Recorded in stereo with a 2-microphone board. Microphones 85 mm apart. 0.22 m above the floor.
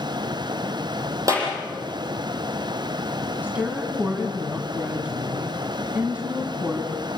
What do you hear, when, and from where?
1.3 s a clap: 40° right (ahead or behind), 7.5 m
3.4 s a woman speaking: 20° right (ahead or behind), 2 m